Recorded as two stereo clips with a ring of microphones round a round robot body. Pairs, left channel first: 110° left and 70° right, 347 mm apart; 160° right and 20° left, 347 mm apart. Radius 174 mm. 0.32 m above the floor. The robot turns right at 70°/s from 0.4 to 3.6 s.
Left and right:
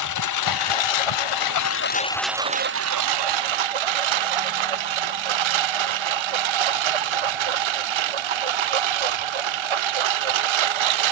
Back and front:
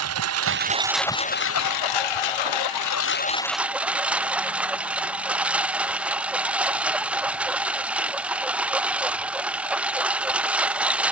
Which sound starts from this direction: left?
A lawn mower, at 0.0 s.